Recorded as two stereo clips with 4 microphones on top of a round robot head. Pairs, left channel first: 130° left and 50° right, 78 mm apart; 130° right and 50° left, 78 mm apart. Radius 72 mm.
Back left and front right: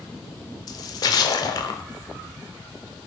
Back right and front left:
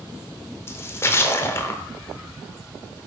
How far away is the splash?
About 0.7 m.